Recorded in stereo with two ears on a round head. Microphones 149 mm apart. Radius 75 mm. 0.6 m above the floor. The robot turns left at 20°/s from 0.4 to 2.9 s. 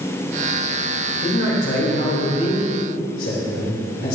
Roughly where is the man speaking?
Left.